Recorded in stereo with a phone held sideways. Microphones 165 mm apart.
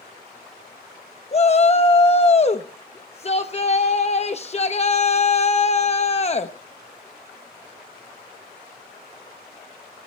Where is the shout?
40° left (ahead or behind), 0.8 m.